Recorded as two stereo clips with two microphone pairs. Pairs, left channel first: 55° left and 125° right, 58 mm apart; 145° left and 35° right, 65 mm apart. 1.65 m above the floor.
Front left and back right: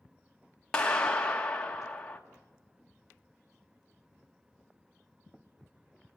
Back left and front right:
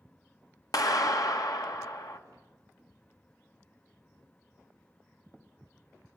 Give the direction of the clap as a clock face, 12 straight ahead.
8 o'clock.